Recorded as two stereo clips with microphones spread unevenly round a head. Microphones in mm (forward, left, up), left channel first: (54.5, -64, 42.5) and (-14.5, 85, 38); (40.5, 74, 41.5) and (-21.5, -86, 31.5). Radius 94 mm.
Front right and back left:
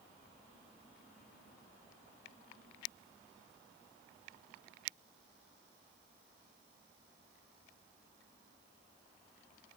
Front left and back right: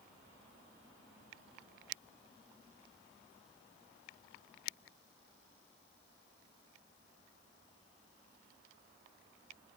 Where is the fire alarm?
No fire alarm in this recording.